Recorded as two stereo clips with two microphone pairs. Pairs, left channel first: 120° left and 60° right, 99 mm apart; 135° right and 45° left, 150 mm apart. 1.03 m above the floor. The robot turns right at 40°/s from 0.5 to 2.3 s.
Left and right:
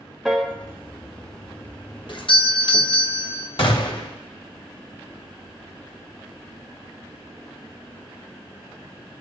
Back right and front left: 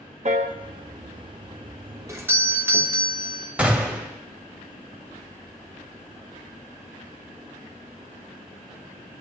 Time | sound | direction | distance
0.2 | a piano | 30° left | 1.1 m
2.1 | a doorbell | 105° left | 1.1 m
3.6 | a gunshot | 125° left | 1.4 m